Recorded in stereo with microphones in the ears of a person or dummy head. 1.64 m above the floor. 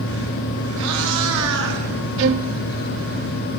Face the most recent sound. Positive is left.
turn(degrees=-65)  # may be behind; listen again after turning